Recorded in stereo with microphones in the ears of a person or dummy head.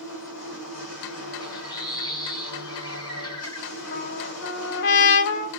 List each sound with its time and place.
0.0 s a machine running: 80° left, 1.5 m
1.4 s a bird: 20° left (ahead or behind), 1.0 m
3.9 s a trumpet: 55° left (ahead or behind), 0.6 m